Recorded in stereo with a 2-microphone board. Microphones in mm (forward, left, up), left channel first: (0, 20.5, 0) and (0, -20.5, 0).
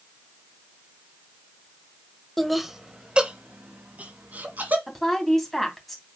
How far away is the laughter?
About 1.0 m.